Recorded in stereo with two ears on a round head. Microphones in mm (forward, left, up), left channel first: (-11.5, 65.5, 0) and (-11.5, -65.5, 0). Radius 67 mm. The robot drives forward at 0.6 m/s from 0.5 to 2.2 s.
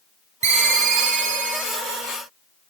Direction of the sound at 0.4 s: 50° right (ahead or behind).